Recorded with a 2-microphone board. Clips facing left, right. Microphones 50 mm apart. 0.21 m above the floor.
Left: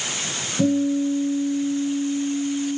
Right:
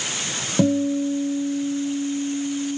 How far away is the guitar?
About 0.7 m.